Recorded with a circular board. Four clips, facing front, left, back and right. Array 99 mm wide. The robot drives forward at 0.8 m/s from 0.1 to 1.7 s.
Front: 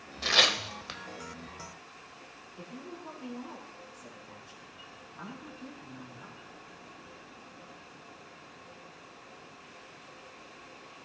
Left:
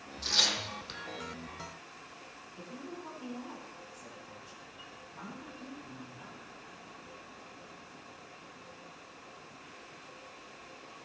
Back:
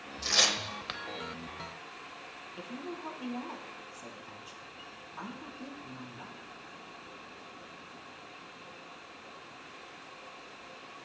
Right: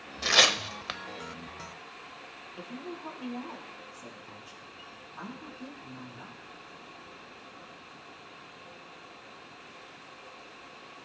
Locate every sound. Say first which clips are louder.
0.2 s tearing paper: right 10 dB, front 4 dB; 65° right, 0.7 m; by 1.0 s 115° right, 0.7 m
2.6 s a woman speaking: right 4 dB, back 3 dB; 150° right, 3 m